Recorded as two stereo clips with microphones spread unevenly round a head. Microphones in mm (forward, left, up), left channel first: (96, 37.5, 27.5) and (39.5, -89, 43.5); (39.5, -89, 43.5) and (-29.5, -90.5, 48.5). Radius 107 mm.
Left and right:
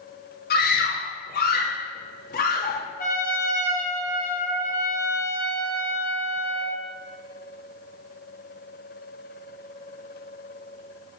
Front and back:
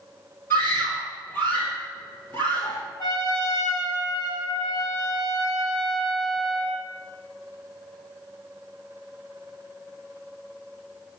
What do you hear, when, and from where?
0.5 s a scream: 75° left, 2.5 m
3.0 s a trumpet: 45° left, 4 m